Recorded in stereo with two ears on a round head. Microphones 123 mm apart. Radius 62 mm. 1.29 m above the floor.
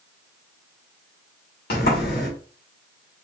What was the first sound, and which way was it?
A sliding door, 75° left (ahead or behind).